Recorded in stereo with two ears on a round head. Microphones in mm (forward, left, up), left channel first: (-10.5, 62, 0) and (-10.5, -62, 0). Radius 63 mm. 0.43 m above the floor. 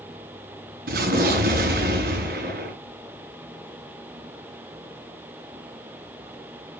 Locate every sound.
0.9 s an explosion: 75° right (ahead or behind), 5.5 m